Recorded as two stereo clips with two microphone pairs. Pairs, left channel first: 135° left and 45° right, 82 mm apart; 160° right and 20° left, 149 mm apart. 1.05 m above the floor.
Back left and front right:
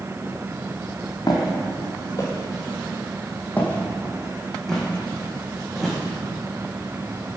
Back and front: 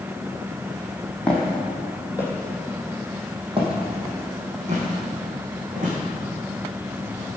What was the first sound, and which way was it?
Footsteps, 115° left.